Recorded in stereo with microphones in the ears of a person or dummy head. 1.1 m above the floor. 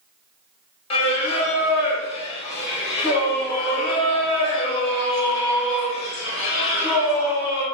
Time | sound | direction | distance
0.9 | singing | 35° left (ahead or behind) | 0.9 m